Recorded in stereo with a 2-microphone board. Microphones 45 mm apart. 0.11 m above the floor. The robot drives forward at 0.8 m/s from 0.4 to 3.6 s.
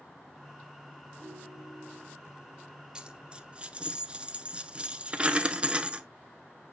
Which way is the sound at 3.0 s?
20° right (ahead or behind).